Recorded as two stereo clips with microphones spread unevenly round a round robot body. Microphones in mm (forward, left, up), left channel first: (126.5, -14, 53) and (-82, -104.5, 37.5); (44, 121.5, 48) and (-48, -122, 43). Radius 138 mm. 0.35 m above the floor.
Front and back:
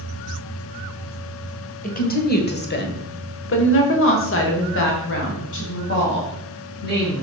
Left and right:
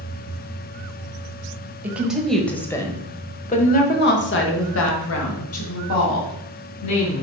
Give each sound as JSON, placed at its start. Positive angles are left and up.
{"t": 1.8, "sound": "a woman speaking", "azimuth_deg": -30, "distance_m": 1.7}